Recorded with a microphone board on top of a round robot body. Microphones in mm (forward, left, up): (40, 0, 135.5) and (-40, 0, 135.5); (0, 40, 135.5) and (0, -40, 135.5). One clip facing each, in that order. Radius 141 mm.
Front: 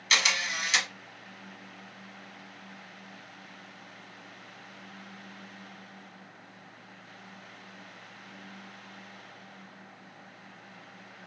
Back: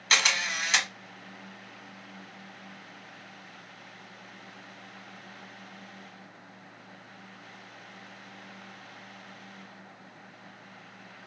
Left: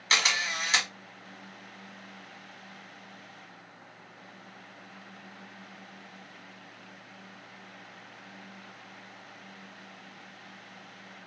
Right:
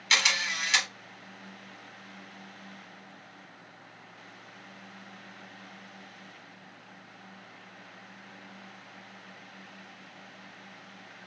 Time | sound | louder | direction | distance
0.1 | a camera shutter | back 1 dB, even | 145° left | 1.6 m